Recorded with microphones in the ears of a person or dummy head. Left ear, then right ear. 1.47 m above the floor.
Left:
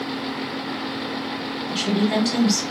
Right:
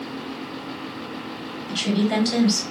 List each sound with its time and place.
1.7 s a woman speaking: centre (ahead or behind), 1.6 m